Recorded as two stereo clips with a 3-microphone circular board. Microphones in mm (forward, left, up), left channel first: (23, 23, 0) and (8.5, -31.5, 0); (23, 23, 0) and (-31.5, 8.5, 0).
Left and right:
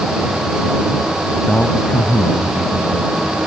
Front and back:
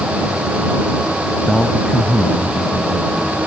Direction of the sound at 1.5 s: 90° left.